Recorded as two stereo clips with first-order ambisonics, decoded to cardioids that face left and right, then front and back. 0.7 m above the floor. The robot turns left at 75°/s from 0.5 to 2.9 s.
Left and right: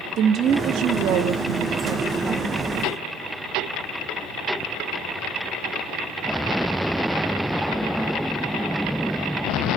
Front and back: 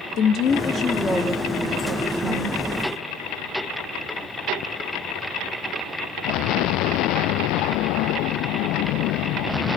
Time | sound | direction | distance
0.2 | a woman speaking | 45° right | 1.1 m